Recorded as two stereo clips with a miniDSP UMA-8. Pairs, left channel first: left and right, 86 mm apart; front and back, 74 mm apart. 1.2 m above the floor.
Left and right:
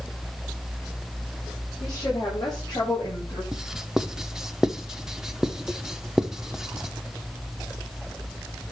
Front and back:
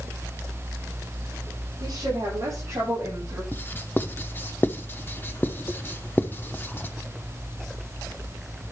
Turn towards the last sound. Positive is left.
turn(degrees=-15)